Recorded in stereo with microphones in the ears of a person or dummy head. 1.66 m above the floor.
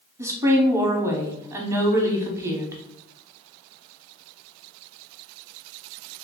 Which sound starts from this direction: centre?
A woman speaking, at 0.2 s.